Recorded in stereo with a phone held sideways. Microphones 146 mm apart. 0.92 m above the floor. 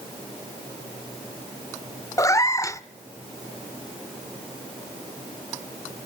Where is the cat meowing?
20° left (ahead or behind), 0.6 m.